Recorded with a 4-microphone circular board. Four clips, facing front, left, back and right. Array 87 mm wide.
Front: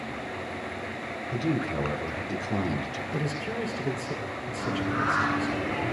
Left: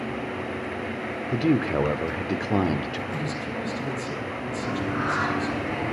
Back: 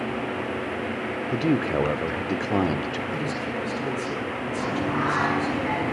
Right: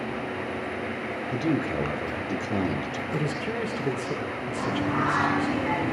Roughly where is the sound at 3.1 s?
Right.